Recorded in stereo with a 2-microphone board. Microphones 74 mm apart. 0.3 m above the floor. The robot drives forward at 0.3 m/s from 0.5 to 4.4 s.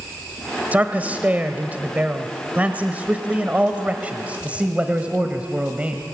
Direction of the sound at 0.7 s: 20° right (ahead or behind).